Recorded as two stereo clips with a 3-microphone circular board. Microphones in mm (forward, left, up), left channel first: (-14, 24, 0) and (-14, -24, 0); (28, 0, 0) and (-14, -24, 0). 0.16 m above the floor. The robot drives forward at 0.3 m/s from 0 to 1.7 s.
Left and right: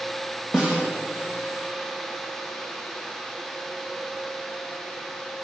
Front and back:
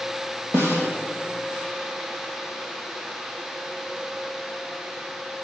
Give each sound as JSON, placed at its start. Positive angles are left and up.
{"t": 0.5, "sound": "a snare drum", "azimuth_deg": -160, "distance_m": 5.0}